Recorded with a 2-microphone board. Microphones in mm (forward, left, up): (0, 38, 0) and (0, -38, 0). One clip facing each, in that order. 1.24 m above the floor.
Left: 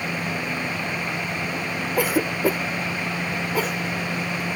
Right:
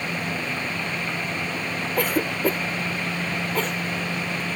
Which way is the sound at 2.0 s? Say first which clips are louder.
Left 2 dB; 5° left (ahead or behind).